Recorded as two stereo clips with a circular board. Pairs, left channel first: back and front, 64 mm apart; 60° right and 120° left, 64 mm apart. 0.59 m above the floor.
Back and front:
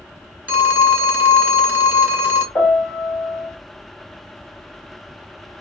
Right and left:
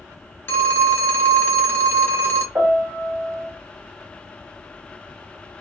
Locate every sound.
0.5 s a phone ringing: 45° right, 0.7 m
2.5 s a piano: 170° left, 1.2 m